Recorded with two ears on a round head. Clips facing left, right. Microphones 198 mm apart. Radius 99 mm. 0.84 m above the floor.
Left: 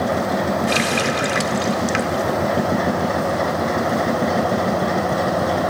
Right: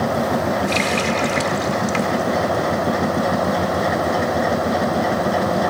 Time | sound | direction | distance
0.7 | a running tap | 15° left (ahead or behind) | 1.3 m